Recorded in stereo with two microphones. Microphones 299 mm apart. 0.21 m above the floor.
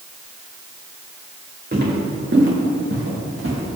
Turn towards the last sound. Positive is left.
turn(degrees=-50)  # may be behind; listen again after turning